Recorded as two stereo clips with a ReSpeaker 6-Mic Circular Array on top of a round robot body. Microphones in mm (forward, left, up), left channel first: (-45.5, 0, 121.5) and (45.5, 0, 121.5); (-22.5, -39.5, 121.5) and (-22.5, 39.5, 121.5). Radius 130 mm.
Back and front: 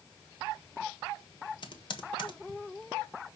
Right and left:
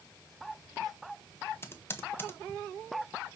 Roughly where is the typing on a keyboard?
Behind right.